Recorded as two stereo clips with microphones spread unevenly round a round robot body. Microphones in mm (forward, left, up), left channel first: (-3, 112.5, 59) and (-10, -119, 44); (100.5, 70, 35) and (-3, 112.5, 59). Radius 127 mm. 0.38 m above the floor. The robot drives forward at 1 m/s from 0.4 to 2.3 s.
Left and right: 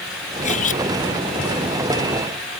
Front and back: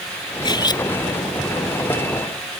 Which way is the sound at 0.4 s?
25° left.